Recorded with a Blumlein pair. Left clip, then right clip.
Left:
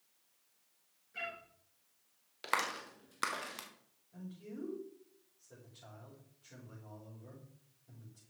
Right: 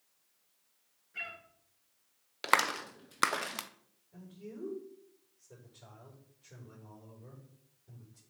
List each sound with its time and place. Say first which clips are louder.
1.1 s a cat meowing: right 1 dB; straight ahead, 5.5 m
2.4 s a clap: right 7 dB; 25° right, 0.7 m
4.1 s a man speaking: right 1 dB; 15° right, 5 m